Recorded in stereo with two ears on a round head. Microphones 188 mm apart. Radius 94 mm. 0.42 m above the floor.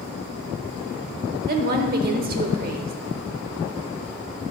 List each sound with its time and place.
1.5 s a woman speaking: 45° right (ahead or behind), 1.0 m